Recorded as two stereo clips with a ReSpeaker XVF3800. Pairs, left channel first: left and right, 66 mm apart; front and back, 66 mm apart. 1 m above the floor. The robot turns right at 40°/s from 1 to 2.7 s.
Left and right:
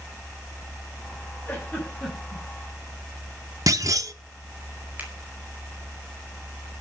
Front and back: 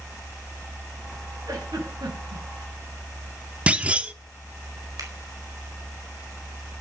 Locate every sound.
1.5 s a giggle: 150° left, 6 m; by 2.4 s 170° right, 6 m
3.7 s a clunk: 110° right, 0.8 m
5.0 s a finger snap: 155° right, 4.5 m